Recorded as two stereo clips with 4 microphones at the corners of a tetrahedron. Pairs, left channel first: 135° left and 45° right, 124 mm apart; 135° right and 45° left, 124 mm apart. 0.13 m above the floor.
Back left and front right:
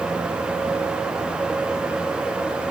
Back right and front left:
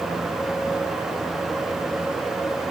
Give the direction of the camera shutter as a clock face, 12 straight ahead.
No camera shutter in this recording.